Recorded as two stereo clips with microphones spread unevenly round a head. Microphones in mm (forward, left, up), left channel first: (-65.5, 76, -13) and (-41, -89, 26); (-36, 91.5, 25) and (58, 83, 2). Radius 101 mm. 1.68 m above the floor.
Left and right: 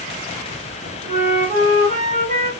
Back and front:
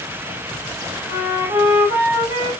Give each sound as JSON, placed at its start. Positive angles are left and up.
{"t": 1.1, "sound": "a flute", "azimuth_deg": -120, "distance_m": 1.1}